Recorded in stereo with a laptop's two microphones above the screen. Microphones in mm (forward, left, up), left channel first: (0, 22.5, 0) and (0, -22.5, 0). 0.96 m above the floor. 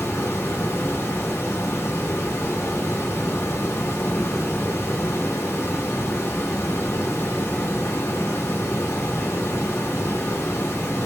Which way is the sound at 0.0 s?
75° left (ahead or behind).